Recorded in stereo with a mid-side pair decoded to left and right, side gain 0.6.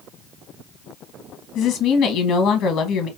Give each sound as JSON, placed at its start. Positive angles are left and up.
{"t": 1.6, "sound": "a woman speaking", "azimuth_deg": 65, "distance_m": 1.3}